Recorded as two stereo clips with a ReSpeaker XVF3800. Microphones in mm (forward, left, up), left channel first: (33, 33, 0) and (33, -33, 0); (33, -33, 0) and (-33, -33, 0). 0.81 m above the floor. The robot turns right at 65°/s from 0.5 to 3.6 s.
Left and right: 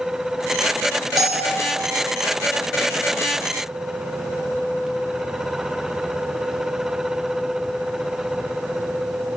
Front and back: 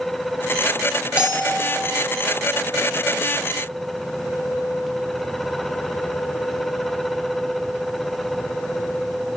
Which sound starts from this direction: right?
A bell, at 1.2 s.